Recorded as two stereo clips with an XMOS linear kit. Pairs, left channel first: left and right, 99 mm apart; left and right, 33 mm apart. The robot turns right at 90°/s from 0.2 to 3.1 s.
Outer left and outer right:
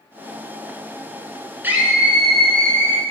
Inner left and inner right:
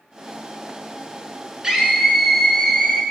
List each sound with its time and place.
1.6 s a scream: 20° right (ahead or behind), 1.2 m; by 3.0 s 20° left (ahead or behind), 1.2 m